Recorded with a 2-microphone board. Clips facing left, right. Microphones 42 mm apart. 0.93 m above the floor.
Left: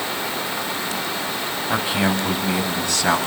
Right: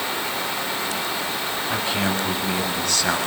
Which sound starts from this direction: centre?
A man speaking, at 1.7 s.